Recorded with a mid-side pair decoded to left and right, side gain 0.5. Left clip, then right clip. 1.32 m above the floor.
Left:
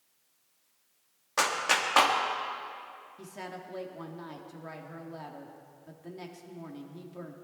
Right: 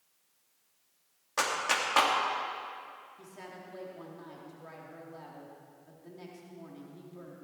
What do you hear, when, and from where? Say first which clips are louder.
1.4 s a clap: left 3 dB; 15° left, 2 m
3.2 s a woman speaking: left 5 dB; 40° left, 3 m